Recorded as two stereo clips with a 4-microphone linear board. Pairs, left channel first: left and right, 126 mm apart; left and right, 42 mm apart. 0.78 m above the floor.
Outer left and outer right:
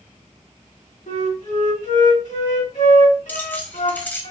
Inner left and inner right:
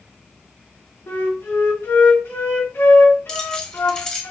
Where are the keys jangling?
15° left (ahead or behind), 1.1 m.